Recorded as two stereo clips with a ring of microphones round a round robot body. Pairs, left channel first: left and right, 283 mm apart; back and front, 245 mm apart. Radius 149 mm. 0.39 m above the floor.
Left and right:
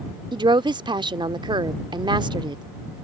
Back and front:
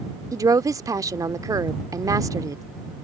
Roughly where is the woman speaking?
Ahead right.